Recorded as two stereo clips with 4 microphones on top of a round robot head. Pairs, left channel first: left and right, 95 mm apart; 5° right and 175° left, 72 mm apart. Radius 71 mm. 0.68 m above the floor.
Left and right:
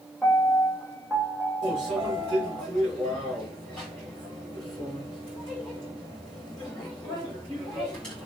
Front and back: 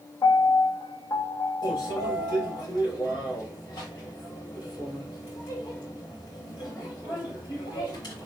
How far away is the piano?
About 0.9 m.